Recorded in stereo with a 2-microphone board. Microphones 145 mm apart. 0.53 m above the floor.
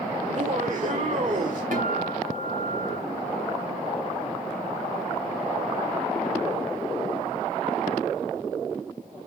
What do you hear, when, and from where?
0.2 s laughter: 55° right (ahead or behind), 1.5 m
1.7 s a guitar: 70° right (ahead or behind), 2.5 m